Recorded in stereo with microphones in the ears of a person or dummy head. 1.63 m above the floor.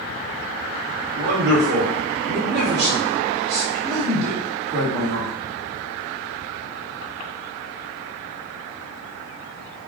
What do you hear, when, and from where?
1.2 s a man speaking: 55° right (ahead or behind), 1.0 m